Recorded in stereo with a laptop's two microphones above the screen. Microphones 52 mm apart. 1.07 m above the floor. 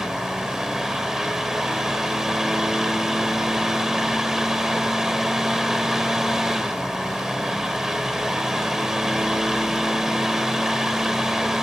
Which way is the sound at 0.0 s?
10° right (ahead or behind).